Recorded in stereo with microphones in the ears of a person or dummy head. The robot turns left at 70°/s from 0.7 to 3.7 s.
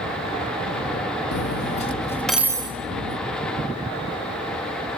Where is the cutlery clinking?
70° left (ahead or behind), 1.2 m; by 3.2 s 60° right (ahead or behind), 1.2 m.